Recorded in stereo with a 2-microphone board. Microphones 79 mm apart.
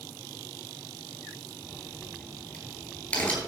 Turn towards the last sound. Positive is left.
turn(degrees=20)  # may be behind; listen again after turning